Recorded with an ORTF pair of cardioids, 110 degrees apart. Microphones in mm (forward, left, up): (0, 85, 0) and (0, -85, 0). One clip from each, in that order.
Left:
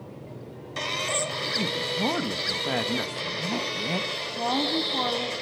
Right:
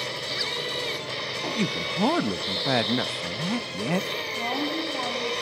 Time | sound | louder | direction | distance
1.6 | a man speaking | even | 25° right | 1.1 m
4.4 | a woman speaking | left 5 dB | 25° left | 7.5 m